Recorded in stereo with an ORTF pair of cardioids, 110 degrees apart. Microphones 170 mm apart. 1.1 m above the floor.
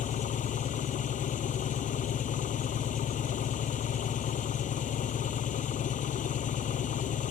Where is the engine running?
50° left.